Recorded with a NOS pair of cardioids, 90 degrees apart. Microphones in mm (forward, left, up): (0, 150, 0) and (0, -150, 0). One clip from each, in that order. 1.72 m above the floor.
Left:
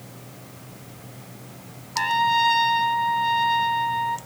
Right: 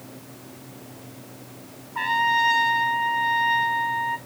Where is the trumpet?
10° left, 0.9 m.